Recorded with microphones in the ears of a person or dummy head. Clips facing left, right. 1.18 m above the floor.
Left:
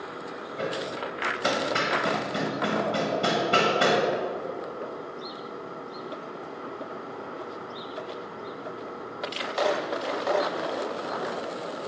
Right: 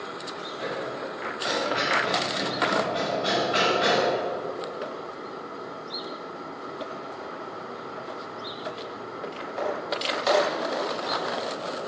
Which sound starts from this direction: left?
Hammering, at 0.6 s.